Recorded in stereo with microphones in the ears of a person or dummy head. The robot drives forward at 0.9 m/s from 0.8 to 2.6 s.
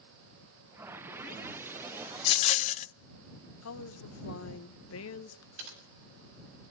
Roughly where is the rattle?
Left.